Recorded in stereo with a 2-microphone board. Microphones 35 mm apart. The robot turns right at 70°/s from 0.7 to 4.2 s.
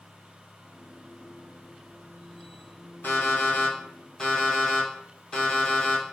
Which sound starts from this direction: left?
An alarm clock, at 3.0 s.